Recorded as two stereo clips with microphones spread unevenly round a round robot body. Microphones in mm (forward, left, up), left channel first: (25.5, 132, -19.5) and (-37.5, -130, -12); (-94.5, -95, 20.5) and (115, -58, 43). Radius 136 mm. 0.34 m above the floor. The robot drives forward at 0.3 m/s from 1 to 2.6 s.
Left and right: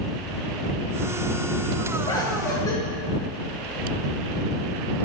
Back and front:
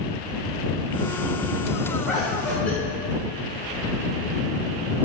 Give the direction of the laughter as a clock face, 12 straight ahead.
8 o'clock.